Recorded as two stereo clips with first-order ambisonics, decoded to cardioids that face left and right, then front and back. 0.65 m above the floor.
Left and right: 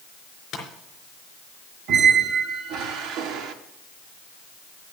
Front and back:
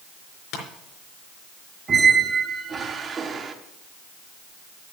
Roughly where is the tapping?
Ahead left.